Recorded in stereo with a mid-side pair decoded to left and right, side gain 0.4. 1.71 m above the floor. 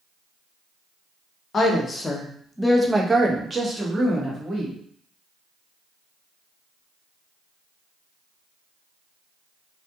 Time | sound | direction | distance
1.5 | a woman speaking | 45° left | 0.9 m